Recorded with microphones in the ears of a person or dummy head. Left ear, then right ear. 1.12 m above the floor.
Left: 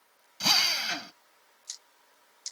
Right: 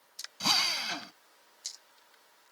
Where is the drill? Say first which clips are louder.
Left 3 dB; 15° left (ahead or behind).